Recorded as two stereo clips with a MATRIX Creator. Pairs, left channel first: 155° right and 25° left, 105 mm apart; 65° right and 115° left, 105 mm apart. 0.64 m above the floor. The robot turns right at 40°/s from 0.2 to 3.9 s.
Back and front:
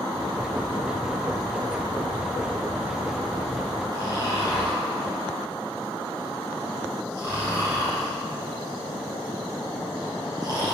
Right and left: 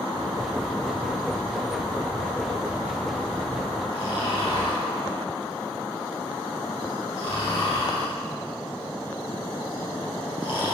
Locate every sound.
3.9 s snoring: 30° right, 4 m